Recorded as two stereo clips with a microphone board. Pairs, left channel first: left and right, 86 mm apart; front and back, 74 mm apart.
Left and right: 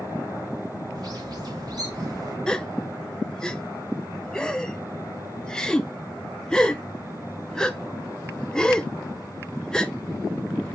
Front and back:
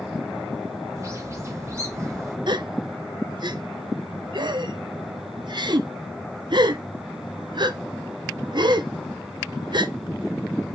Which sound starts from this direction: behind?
A gasp, at 2.5 s.